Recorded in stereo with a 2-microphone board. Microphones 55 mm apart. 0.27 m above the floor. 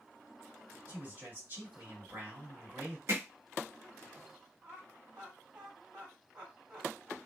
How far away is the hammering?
About 1.3 m.